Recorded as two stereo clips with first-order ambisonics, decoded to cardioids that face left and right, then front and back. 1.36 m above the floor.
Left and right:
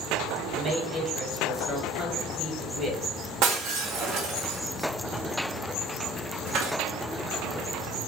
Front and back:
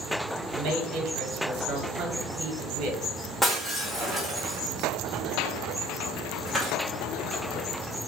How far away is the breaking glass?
About 0.6 m.